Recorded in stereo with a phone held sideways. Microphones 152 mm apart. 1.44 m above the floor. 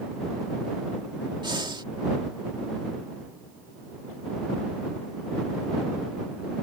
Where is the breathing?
30° right (ahead or behind).